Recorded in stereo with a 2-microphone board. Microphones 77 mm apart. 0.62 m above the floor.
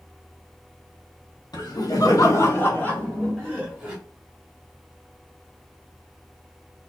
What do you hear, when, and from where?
1.5 s laughter: 60° left (ahead or behind), 1.1 m; by 4.0 s 5° right (ahead or behind), 1.4 m